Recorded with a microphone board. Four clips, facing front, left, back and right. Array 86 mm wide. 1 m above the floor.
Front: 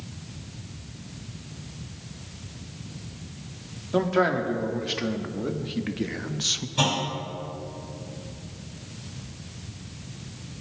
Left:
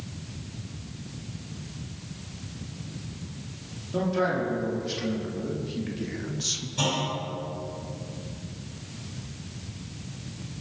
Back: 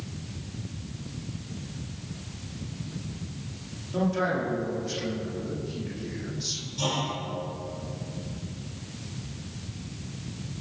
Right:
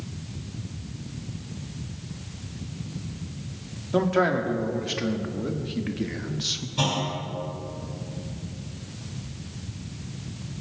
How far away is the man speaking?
About 2 m.